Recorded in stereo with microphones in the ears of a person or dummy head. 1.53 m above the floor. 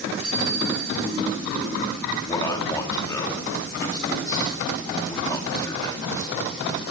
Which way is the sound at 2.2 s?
20° left (ahead or behind).